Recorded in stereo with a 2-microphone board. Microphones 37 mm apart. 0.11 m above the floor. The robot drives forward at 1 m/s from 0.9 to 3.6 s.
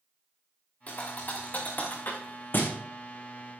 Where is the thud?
40° left (ahead or behind), 4 m; by 2.8 s 65° left (ahead or behind), 3 m.